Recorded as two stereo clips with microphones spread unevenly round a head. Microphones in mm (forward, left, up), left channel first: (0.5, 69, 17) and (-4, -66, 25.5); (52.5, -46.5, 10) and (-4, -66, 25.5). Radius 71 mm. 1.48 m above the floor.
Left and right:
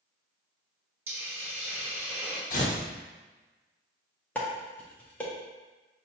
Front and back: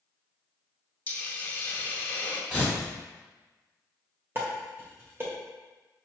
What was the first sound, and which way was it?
A hiss, 30° right.